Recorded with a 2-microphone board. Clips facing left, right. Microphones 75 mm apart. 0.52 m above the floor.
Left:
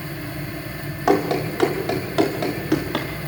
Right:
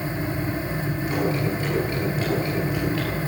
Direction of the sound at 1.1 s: 85° left.